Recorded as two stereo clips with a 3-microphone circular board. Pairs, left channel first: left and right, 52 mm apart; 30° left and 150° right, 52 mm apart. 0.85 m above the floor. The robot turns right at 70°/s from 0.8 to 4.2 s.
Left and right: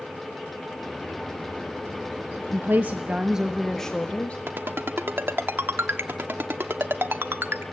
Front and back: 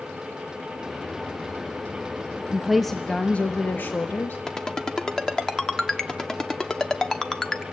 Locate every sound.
2.5 s a woman speaking: 80° right, 1.1 m; by 4.4 s 40° left, 1.1 m
4.5 s a ringtone: 50° right, 1.3 m